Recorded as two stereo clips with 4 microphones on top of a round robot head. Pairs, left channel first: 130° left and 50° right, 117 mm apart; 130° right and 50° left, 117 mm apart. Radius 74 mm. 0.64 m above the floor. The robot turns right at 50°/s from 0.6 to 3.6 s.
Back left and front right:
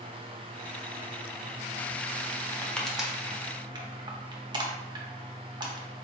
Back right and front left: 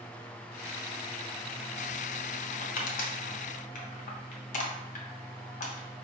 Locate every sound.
2.5 s crushing: 160° right, 0.8 m; by 6.0 s 105° right, 0.8 m